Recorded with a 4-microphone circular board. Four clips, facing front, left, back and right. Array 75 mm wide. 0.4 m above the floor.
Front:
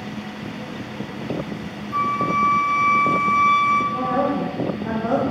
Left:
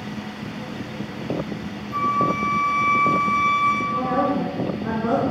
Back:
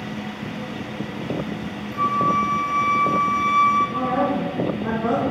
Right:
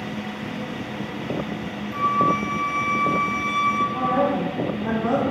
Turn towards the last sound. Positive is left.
turn(degrees=170)